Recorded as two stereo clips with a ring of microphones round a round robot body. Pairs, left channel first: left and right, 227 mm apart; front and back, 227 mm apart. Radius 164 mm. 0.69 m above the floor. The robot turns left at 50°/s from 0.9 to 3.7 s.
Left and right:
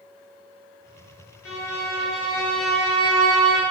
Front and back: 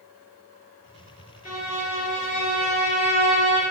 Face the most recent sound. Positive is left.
turn(degrees=-55)